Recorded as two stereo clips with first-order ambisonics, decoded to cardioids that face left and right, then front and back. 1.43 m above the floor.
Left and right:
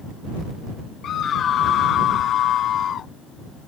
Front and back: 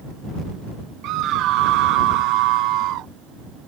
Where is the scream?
145° left.